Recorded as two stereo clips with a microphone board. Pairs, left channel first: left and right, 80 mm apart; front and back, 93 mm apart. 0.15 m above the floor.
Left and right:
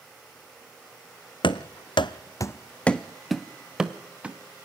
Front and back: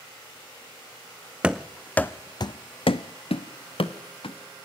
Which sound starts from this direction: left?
Running footsteps, at 1.4 s.